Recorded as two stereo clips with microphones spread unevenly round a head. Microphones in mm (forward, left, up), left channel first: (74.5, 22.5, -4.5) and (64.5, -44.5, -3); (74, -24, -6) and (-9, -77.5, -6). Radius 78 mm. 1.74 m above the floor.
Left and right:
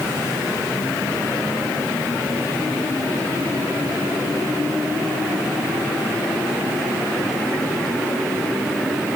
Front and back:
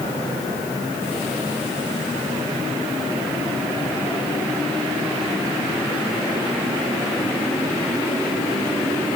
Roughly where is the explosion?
No explosion in this recording.